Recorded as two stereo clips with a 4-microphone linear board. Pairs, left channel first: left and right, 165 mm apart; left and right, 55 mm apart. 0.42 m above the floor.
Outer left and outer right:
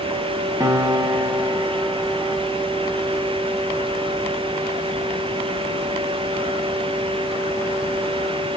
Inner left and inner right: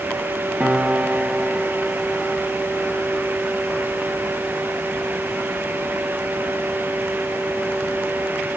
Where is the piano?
15° right (ahead or behind), 0.5 m.